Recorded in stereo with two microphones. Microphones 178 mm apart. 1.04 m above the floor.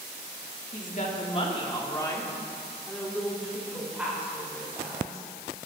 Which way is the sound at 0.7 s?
50° left (ahead or behind).